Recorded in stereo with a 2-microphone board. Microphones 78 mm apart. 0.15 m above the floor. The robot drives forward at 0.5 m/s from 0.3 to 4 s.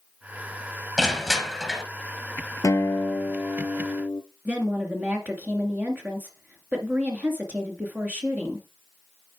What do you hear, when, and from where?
1.0 s crushing: centre (ahead or behind), 2 m
2.6 s a guitar: 50° left (ahead or behind), 0.9 m; by 4.2 s 30° left (ahead or behind), 1.4 m
4.5 s a woman speaking: 25° right (ahead or behind), 2 m